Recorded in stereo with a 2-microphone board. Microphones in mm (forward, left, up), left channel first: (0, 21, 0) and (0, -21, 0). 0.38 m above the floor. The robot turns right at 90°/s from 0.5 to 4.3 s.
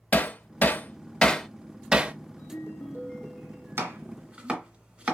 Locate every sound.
0.1 s hammering: 40° left (ahead or behind), 0.6 m; by 2.1 s 30° right (ahead or behind), 0.6 m
2.4 s a ringtone: 85° left, 2.0 m; by 4.0 s 125° right, 2.0 m
3.8 s chopping: 70° right (ahead or behind), 1.8 m; by 5.2 s 30° right (ahead or behind), 1.8 m